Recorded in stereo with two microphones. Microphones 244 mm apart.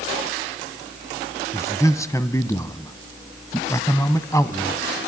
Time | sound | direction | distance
1.5 | a man speaking | 15° left (ahead or behind) | 1.0 m